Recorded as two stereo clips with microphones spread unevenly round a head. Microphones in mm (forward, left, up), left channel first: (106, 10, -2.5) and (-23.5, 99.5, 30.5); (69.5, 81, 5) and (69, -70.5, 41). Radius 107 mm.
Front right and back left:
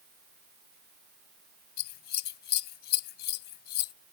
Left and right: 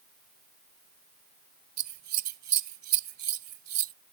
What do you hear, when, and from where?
1.8 s scissors: 80° right